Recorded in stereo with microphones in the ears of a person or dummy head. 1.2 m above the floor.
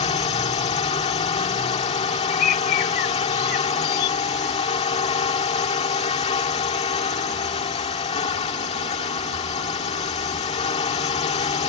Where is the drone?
25° left (ahead or behind).